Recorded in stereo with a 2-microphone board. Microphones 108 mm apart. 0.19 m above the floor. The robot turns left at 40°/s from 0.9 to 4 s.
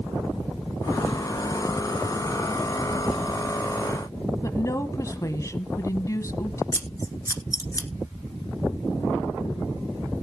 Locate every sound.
4.4 s a woman speaking: 30° left (ahead or behind), 1.1 m
6.7 s scissors: 35° left (ahead or behind), 1.5 m